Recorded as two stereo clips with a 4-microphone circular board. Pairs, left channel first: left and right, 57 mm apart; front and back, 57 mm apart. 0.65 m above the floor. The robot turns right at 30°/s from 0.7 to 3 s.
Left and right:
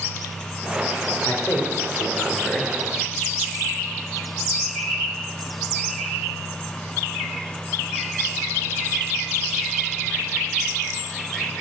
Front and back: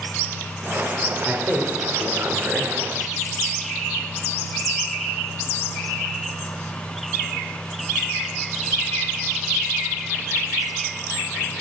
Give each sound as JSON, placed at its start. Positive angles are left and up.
{"t": 1.2, "sound": "a man speaking", "azimuth_deg": 115, "distance_m": 1.7}